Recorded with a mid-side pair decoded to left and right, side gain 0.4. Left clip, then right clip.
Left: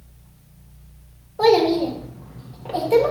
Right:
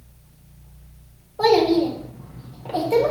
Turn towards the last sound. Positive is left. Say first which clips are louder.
# left 1 dB
turn(degrees=15)